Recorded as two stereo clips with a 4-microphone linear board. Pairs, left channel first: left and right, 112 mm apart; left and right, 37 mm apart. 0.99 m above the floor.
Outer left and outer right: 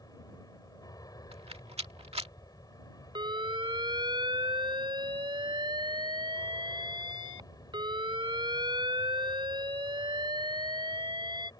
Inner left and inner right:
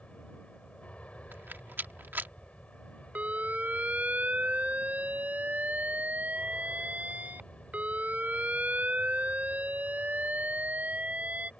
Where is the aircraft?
35° left (ahead or behind).